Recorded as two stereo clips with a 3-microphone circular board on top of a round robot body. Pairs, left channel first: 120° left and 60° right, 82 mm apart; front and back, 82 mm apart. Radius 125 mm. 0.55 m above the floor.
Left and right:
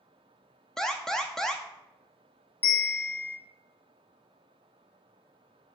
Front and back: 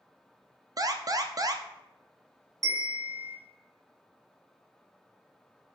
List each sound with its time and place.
0.8 s an alarm: 160° right, 0.8 m
2.6 s a bell: 175° left, 1.3 m